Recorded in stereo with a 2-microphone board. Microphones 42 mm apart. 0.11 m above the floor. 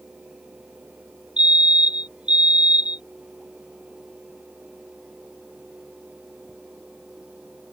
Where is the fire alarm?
30° right (ahead or behind).